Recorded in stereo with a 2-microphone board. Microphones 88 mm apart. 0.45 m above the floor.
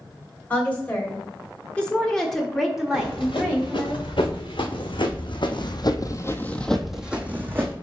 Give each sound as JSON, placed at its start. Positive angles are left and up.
{"t": 0.5, "sound": "a woman speaking", "side_deg": 20, "distance_m": 2.5}
{"t": 2.9, "sound": "running footsteps", "side_deg": 70, "distance_m": 3.0}